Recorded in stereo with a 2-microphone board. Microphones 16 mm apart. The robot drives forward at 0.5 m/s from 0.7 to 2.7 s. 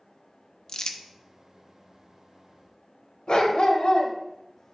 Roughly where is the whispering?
I don't hear whispering.